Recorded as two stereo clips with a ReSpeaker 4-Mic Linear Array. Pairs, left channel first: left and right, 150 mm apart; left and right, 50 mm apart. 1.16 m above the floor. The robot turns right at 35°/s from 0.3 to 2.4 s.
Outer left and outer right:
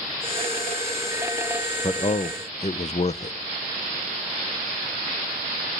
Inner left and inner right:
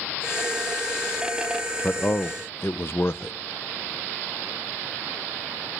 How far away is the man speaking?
About 0.6 m.